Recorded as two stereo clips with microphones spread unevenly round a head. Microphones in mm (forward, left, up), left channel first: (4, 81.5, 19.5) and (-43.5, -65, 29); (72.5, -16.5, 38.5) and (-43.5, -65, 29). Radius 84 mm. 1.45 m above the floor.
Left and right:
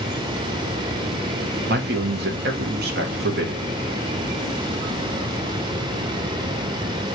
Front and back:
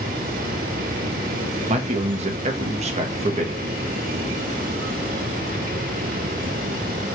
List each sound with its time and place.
1.7 s a man speaking: 125° right, 0.9 m